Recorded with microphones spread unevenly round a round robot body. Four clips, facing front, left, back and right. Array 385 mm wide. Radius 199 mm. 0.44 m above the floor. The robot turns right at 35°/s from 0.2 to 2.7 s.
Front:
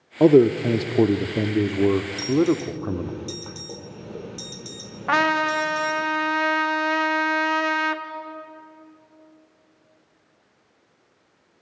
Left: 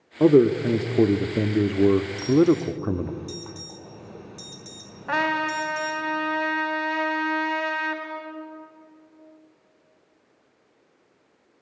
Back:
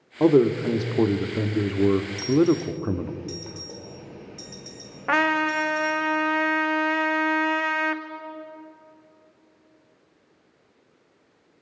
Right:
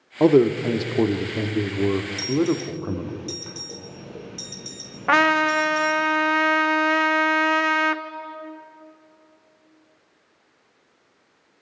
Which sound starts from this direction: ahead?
A man speaking, at 0.2 s.